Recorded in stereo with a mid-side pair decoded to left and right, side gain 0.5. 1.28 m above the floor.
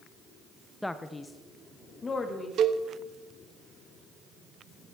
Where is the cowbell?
60° right, 1.0 m.